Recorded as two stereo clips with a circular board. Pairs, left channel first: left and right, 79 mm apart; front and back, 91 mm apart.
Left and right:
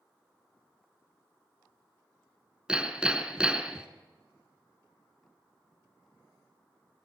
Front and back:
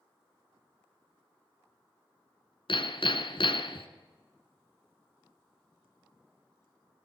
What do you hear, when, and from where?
2.7 s hammering: 10° right, 1.4 m